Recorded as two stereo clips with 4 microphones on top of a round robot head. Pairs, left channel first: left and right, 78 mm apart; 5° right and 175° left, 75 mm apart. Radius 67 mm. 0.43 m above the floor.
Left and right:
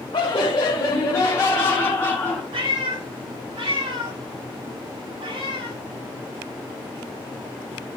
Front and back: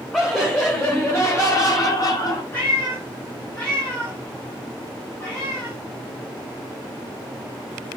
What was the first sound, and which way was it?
Laughter, 85° left.